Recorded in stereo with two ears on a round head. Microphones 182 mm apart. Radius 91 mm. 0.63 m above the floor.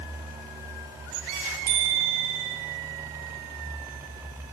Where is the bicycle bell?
45° right (ahead or behind), 9 m.